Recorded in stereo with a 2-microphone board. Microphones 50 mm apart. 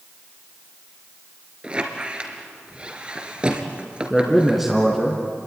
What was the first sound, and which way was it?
A squeak, 20° right (ahead or behind).